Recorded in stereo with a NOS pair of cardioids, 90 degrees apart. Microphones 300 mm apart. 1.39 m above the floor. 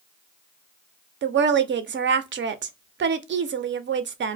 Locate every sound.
1.2 s a woman speaking: 40° right, 0.5 m